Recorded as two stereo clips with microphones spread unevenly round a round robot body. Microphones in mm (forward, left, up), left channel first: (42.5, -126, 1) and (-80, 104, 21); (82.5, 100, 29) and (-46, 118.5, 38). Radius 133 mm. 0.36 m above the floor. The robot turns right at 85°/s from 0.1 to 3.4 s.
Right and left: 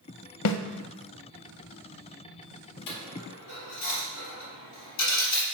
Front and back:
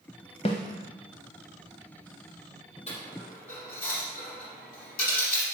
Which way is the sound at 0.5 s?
60° right.